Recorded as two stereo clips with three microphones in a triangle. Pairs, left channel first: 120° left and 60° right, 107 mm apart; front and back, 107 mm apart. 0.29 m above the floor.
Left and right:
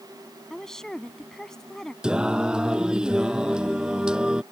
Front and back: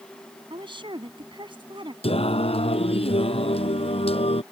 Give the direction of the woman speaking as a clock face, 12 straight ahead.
5 o'clock.